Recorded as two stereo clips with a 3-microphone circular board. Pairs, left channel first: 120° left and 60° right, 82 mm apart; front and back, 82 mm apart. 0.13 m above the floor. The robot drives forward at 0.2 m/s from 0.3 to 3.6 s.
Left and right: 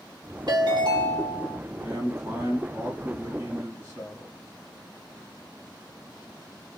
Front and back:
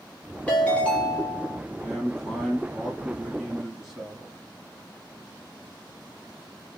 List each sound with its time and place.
0.5 s a ringtone: 70° right, 1.3 m; by 1.6 s 80° right, 1.3 m
1.8 s a man speaking: 70° right, 1.4 m; by 4.4 s 95° right, 1.4 m